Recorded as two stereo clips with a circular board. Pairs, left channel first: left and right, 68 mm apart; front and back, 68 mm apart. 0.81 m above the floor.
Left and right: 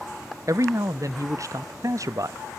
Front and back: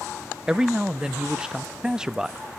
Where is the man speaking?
105° right, 0.6 m.